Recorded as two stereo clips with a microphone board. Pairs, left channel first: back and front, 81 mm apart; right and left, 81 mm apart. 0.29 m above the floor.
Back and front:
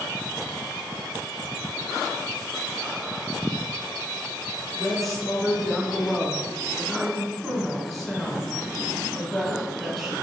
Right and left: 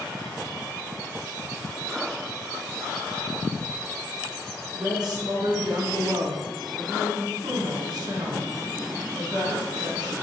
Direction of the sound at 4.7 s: 90° left.